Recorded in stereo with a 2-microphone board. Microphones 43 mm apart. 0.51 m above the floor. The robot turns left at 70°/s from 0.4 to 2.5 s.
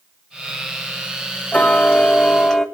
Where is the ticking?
95° left, 0.9 m; by 2.6 s 25° left, 0.9 m.